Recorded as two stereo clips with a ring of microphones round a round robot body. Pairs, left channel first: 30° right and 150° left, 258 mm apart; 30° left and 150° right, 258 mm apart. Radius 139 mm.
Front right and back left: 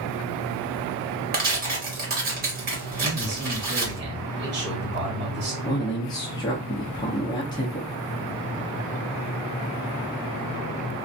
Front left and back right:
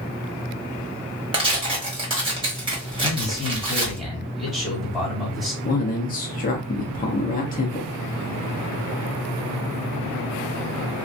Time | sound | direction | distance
1.3 | tearing paper | 155° left | 1.2 m
3.0 | a man speaking | 120° left | 1.8 m
5.6 | a man speaking | 30° left | 0.6 m